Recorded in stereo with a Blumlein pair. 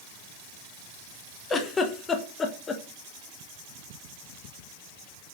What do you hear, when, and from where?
1.5 s a giggle: 20° left, 0.6 m